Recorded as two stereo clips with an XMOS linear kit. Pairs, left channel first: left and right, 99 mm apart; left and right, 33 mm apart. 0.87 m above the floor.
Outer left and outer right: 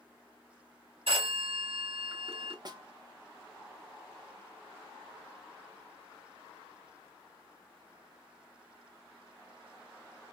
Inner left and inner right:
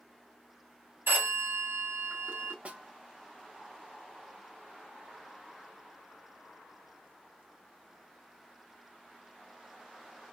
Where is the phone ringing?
85° right, 2.0 m.